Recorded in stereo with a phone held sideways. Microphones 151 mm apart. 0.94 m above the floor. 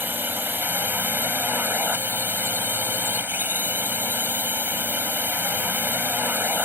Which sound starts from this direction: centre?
A drone, at 0.0 s.